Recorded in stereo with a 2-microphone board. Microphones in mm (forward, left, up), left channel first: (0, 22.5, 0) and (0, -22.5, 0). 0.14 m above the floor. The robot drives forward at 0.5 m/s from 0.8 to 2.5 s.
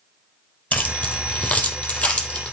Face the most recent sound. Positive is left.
turn(degrees=30)  # may be behind; listen again after turning